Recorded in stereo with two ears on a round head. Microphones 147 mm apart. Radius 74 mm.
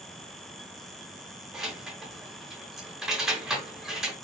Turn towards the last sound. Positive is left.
turn(degrees=-5)  # may be behind; listen again after turning